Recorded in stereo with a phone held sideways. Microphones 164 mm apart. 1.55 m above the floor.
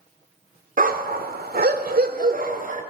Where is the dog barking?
55° right (ahead or behind), 2 m.